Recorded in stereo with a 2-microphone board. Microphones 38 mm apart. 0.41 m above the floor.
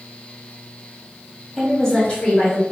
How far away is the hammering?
I don't hear hammering.